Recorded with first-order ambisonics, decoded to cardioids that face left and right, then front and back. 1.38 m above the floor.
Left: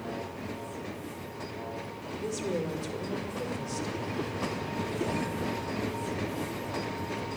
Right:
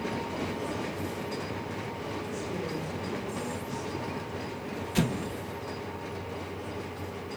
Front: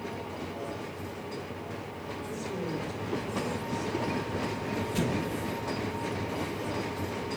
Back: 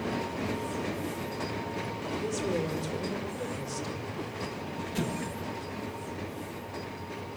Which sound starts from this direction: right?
An explosion, at 5.0 s.